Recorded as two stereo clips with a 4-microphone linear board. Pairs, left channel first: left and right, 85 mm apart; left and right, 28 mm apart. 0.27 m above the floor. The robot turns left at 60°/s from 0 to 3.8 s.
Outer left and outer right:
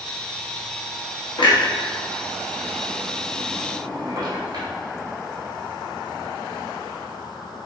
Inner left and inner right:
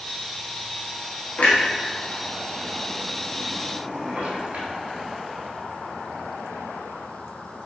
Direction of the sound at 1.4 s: 85° left.